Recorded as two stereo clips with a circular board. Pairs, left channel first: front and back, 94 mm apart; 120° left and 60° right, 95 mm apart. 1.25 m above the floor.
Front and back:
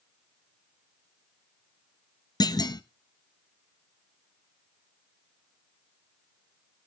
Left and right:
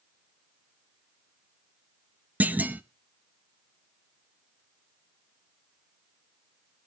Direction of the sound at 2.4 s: 5° left.